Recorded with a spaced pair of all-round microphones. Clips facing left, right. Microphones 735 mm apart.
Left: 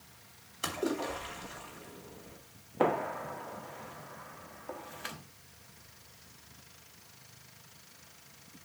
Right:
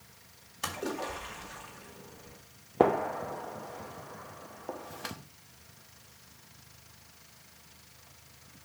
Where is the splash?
30° right (ahead or behind), 2 m.